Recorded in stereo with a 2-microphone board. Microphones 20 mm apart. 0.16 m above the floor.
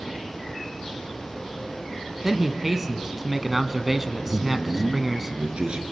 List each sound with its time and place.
2.2 s a man speaking: 10° right (ahead or behind), 1.0 m
4.3 s a man speaking: 60° right (ahead or behind), 2.5 m